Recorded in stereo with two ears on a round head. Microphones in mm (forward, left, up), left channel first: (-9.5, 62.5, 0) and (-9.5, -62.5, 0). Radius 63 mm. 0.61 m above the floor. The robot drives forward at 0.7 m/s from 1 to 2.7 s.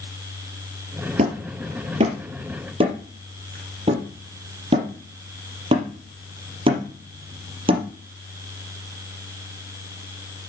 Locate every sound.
1.2 s hammering: 50° right (ahead or behind), 3.5 m; by 7.8 s 40° right (ahead or behind), 4 m